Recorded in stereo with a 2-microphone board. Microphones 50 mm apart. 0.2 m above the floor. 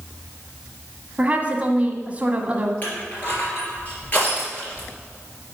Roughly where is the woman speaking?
Right.